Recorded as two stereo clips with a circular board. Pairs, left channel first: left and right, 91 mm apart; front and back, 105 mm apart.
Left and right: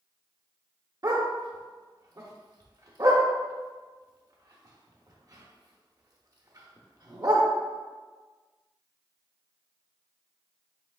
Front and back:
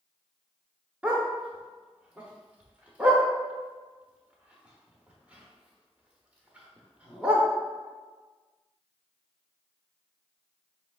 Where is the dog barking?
105° right, 0.8 m.